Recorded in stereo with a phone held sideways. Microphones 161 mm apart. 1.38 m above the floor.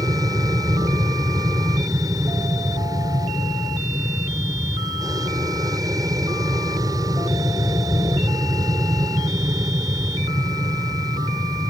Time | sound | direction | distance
0.0 | an aircraft | 20° right (ahead or behind) | ?